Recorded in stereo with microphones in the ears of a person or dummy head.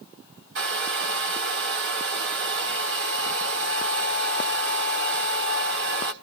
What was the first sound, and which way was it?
A hair dryer, 50° right (ahead or behind).